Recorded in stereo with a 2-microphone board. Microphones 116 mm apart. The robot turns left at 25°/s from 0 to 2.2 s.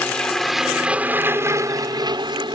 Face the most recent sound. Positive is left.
turn(degrees=-40)